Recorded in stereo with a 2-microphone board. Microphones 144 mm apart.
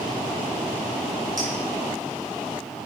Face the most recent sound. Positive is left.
turn(degrees=-30)  # may be behind; listen again after turning